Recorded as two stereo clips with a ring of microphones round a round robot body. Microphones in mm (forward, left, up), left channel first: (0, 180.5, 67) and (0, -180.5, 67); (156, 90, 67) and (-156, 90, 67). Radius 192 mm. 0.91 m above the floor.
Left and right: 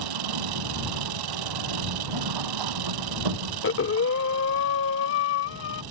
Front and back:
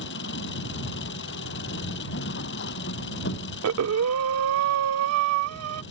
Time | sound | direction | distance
0.0 | an engine running | 60° right | ?
3.6 | breathing | 145° left | ?